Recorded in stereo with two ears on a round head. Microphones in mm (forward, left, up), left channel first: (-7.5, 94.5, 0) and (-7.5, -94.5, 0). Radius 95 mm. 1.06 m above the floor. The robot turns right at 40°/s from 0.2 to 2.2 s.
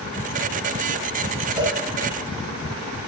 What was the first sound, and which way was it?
A cowbell, 5° right (ahead or behind).